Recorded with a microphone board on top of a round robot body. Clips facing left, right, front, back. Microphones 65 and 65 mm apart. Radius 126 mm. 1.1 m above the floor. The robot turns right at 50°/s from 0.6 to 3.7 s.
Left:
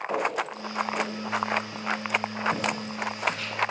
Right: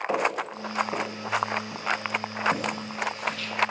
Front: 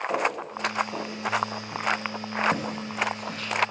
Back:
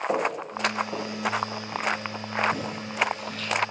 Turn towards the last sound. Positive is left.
turn(degrees=50)